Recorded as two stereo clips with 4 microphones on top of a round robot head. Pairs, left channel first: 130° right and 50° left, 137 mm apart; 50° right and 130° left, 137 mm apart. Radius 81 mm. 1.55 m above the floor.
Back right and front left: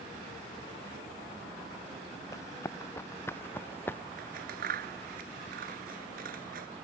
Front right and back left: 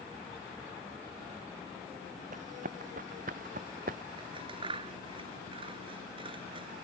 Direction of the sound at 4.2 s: 75° left.